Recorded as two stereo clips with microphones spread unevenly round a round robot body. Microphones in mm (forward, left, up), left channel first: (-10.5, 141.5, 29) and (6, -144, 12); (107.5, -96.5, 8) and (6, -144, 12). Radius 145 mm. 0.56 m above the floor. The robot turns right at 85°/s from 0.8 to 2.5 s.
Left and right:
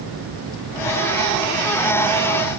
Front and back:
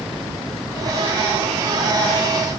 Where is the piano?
I don't hear a piano.